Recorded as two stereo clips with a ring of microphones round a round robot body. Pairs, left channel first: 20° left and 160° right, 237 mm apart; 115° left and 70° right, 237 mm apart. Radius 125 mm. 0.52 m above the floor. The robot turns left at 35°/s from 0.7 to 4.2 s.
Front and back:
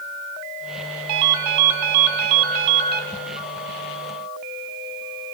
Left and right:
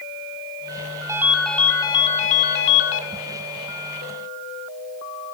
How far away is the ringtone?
About 1.1 m.